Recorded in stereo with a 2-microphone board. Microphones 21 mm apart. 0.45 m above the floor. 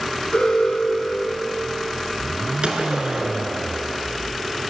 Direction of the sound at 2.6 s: 55° right (ahead or behind).